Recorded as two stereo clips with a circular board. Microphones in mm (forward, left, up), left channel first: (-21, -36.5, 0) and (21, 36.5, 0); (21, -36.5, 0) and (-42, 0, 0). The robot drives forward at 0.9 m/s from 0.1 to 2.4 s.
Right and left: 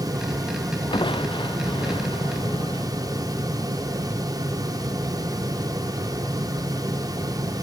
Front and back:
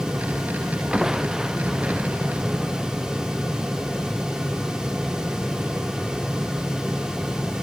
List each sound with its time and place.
0.9 s crushing: 125° right; by 2.9 s 130° right